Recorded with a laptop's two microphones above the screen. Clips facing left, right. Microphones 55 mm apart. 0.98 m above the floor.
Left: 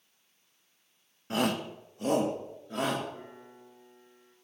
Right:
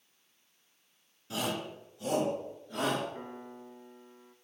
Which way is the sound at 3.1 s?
35° right (ahead or behind).